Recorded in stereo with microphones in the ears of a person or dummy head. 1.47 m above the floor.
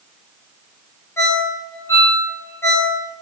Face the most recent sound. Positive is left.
turn(degrees=15)  # may be behind; listen again after turning